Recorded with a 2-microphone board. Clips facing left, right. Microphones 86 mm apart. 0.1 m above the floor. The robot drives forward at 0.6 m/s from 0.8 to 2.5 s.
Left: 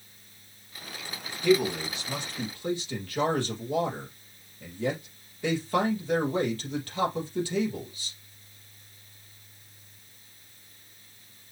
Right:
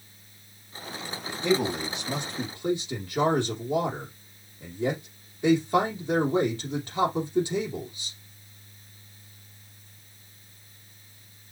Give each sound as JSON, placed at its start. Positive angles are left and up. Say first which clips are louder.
{"t": 1.4, "sound": "a man speaking", "louder": "left 2 dB", "side_deg": -25, "distance_m": 3.5}